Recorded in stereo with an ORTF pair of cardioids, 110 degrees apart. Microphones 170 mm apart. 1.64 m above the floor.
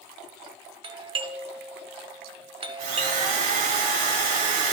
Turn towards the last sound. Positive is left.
turn(degrees=-65)